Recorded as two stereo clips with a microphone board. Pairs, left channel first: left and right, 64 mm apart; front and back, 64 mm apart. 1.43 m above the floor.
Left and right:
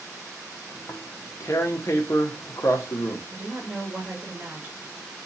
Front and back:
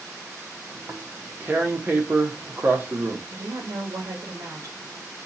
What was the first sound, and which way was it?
Tearing paper, 125° left.